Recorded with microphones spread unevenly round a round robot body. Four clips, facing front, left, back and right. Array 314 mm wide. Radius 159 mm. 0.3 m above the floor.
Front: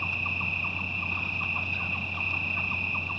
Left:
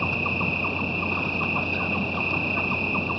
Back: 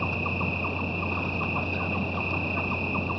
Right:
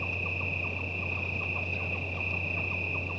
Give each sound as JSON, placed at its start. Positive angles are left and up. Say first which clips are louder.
{"t": 0.0, "sound": "an insect", "louder": "left 10 dB, back 6 dB", "azimuth_deg": 105}